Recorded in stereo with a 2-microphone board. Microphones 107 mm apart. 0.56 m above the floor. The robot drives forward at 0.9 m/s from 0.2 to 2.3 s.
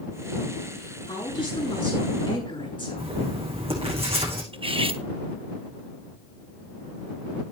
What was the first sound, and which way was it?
A woman speaking, 45° left (ahead or behind).